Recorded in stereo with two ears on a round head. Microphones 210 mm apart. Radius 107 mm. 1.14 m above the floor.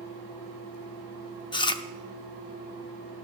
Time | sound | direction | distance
1.5 | chewing | 20° left (ahead or behind) | 0.7 m